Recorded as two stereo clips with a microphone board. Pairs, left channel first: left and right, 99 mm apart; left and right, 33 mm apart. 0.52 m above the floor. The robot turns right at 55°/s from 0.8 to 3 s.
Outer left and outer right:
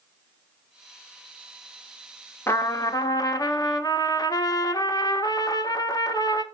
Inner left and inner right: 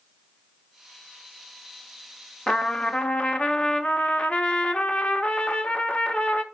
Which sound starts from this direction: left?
A trumpet, at 2.5 s.